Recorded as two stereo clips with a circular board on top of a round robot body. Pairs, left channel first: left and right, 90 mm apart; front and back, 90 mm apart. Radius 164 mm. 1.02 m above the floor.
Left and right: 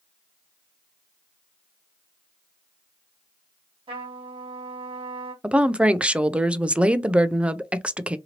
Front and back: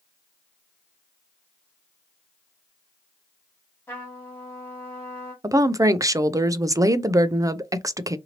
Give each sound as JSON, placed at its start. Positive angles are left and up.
{"t": 3.9, "sound": "a trumpet", "azimuth_deg": -70, "distance_m": 1.2}
{"t": 5.4, "sound": "a woman speaking", "azimuth_deg": -160, "distance_m": 0.5}